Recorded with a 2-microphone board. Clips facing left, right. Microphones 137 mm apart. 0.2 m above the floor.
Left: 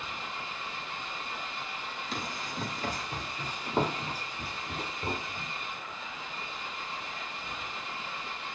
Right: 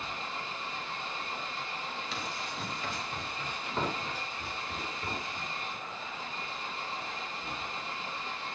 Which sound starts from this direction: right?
An engine running, at 0.0 s.